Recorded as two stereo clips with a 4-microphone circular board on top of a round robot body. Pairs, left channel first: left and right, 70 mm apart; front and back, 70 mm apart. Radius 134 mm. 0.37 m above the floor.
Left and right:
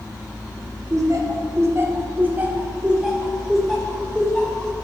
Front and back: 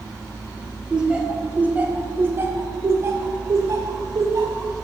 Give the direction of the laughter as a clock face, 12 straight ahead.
3 o'clock.